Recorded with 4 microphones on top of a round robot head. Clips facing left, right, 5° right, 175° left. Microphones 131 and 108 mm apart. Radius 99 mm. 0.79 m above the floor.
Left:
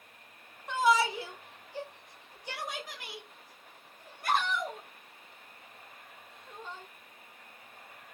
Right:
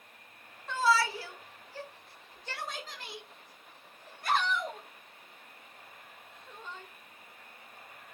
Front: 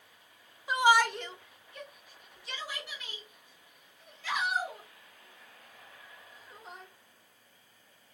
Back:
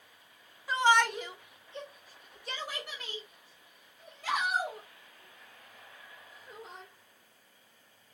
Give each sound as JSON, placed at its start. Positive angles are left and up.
{"t": 0.7, "sound": "a shout", "azimuth_deg": 45, "distance_m": 0.8}